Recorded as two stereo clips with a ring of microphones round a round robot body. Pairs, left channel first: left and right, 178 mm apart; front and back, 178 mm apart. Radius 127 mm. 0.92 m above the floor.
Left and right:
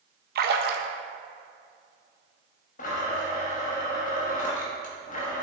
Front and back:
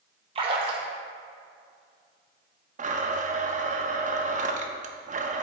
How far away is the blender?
About 0.8 m.